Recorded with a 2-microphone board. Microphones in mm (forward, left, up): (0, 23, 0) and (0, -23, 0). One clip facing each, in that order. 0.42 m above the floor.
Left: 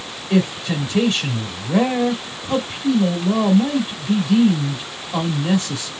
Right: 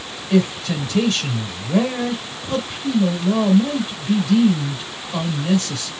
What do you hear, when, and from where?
0.3 s a man speaking: 15° left (ahead or behind), 1.6 m